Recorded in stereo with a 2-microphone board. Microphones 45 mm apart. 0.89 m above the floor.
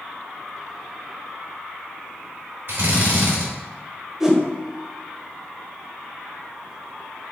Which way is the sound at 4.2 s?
15° right (ahead or behind).